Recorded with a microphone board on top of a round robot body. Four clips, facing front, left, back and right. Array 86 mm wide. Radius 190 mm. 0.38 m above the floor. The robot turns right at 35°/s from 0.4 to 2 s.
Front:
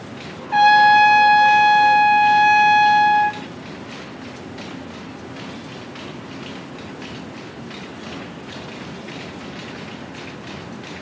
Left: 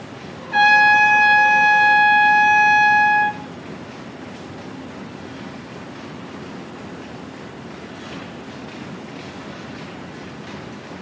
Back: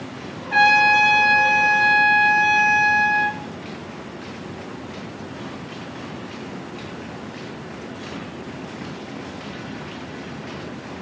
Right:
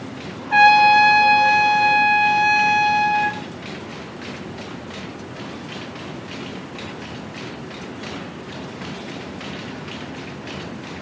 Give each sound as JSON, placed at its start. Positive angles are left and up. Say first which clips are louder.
{"t": 0.5, "sound": "a trumpet", "louder": "right 2 dB, front 5 dB", "azimuth_deg": -115, "distance_m": 1.4}